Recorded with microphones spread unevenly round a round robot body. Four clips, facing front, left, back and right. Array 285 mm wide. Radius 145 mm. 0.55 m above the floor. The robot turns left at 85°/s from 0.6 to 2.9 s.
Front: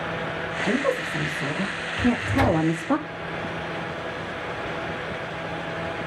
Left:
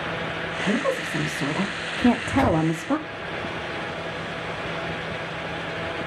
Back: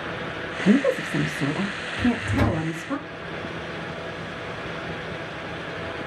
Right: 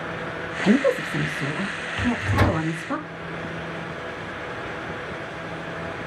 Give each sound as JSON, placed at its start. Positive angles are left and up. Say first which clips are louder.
{"t": 0.6, "sound": "a woman speaking", "louder": "right 6 dB, back 5 dB", "azimuth_deg": -130, "distance_m": 0.7}
{"t": 2.0, "sound": "a microwave", "louder": "left 4 dB, front 1 dB", "azimuth_deg": -75, "distance_m": 0.7}